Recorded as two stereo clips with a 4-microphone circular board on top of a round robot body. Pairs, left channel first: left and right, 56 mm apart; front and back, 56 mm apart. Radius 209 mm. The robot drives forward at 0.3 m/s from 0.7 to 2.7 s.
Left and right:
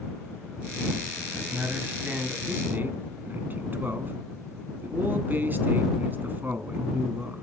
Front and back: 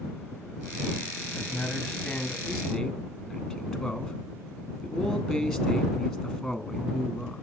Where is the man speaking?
60° right, 1.6 m; by 7.4 s 90° right, 1.5 m.